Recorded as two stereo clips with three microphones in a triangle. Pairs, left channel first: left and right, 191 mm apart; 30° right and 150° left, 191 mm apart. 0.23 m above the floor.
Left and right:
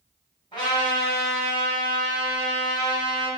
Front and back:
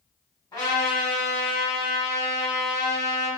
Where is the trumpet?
35° left, 1.3 m.